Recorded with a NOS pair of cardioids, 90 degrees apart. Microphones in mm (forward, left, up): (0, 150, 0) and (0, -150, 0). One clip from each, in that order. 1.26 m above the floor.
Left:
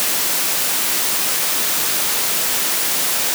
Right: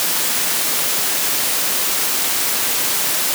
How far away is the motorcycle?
I don't hear a motorcycle.